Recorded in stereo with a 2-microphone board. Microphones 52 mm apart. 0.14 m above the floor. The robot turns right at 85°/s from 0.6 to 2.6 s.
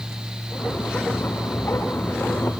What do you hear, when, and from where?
Only background noise.